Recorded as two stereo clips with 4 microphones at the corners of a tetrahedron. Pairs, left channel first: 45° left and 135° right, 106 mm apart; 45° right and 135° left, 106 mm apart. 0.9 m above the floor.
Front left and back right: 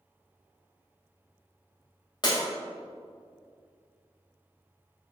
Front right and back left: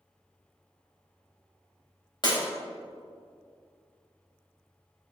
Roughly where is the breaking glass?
Ahead.